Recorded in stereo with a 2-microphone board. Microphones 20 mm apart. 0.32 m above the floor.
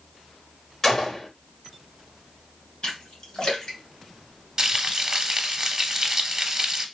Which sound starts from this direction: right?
Frying, at 4.6 s.